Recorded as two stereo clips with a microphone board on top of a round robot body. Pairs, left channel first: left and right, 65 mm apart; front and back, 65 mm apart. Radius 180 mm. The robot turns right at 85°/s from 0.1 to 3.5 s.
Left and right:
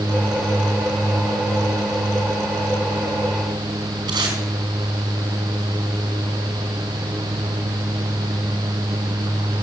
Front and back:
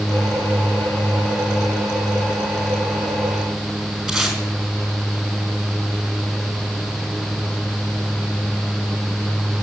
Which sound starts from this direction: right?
Tape being pulled, at 4.1 s.